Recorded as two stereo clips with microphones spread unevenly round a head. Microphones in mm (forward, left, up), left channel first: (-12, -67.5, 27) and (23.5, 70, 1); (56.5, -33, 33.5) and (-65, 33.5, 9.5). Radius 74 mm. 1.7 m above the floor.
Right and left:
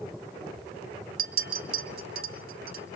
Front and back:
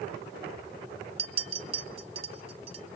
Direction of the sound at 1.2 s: 100° left.